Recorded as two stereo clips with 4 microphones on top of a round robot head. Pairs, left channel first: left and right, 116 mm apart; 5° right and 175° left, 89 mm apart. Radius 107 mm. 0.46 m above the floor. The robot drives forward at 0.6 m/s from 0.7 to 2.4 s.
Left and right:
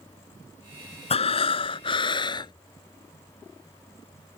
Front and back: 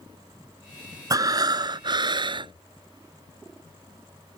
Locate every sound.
1.1 s breathing: 125° left; by 2.5 s 145° left